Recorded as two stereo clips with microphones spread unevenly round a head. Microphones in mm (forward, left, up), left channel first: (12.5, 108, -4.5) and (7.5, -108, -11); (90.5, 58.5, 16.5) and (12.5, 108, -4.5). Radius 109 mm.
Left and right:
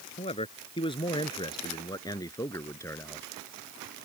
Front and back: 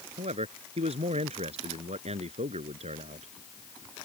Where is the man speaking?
155° left; by 3.3 s 170° left.